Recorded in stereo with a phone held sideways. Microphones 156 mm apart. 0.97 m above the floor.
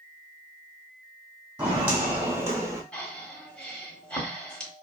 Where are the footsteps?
15° right (ahead or behind), 1.6 m; by 2.8 s 20° right (ahead or behind), 1.0 m.